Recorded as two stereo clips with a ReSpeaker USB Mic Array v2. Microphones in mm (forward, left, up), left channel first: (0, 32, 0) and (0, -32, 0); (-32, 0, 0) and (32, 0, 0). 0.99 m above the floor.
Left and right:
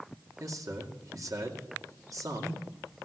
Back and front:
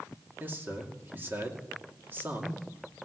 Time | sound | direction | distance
0.4 | a man speaking | 60° right | 2.5 m